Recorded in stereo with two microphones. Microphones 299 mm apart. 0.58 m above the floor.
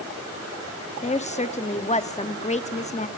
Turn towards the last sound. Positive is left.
turn(degrees=25)  # may be behind; listen again after turning